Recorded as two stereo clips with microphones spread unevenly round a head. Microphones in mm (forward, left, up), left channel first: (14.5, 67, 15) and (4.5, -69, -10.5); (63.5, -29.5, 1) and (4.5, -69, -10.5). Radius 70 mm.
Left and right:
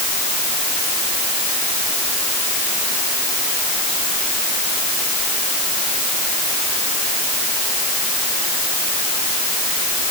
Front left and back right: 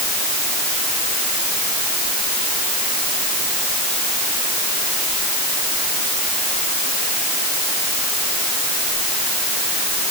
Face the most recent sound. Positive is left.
No sound to turn to.